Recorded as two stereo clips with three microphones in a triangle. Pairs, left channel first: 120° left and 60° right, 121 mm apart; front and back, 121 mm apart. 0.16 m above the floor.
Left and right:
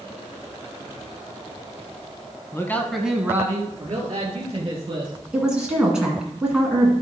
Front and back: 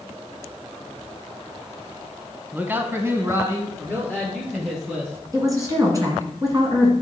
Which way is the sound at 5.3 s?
140° right.